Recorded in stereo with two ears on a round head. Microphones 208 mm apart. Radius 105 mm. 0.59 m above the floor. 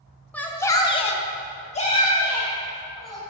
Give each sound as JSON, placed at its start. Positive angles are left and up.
{"t": 0.3, "sound": "a shout", "side_deg": 5, "distance_m": 1.3}